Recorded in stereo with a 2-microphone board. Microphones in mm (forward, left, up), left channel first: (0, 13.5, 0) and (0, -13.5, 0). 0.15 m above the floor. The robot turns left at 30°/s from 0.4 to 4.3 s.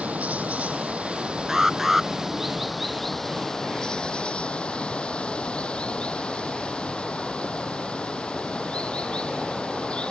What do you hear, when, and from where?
0.0 s running water: 105° right; by 10.1 s 140° left
1.5 s an alarm: 20° right (ahead or behind); by 2.1 s 5° right (ahead or behind)